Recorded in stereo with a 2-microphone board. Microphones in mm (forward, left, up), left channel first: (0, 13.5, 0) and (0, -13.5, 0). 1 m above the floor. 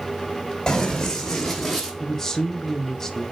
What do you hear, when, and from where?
0.7 s running footsteps: 20° left (ahead or behind), 2 m; by 1.9 s 5° right (ahead or behind), 2 m
2.0 s a man speaking: 15° left (ahead or behind), 1.0 m